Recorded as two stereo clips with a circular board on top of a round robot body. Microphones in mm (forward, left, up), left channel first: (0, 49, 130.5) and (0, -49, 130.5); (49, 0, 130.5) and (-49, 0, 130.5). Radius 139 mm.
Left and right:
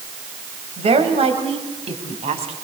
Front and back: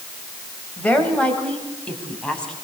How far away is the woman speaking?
About 3.5 m.